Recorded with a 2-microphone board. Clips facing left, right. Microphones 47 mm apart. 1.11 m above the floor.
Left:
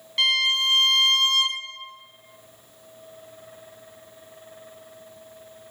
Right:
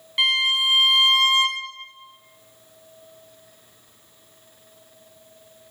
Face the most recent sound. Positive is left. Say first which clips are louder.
# right 1 dB
turn(degrees=-15)  # may be behind; listen again after turning